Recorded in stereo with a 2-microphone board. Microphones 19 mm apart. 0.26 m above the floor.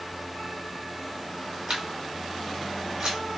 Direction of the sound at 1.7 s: 55° right (ahead or behind).